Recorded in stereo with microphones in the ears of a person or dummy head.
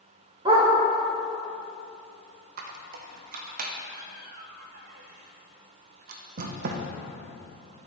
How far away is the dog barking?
About 1.4 m.